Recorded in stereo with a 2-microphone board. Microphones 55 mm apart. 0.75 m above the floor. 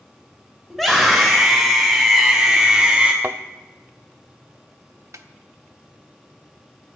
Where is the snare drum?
75° right (ahead or behind), 1.0 m.